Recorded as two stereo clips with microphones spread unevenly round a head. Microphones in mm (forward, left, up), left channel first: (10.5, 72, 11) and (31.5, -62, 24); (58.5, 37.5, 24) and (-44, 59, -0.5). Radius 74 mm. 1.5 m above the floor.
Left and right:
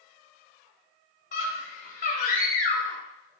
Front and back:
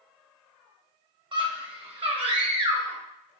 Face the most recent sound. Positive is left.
turn(degrees=135)